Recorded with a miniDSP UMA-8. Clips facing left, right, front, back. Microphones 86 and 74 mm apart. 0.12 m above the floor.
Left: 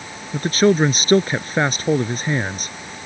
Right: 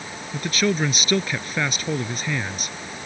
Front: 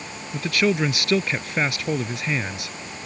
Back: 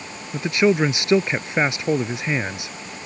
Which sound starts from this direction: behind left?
A man speaking, at 0.3 s.